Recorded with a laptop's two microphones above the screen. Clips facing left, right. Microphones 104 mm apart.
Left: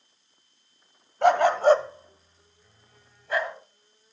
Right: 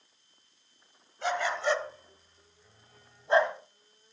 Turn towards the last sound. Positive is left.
turn(degrees=-30)  # may be behind; listen again after turning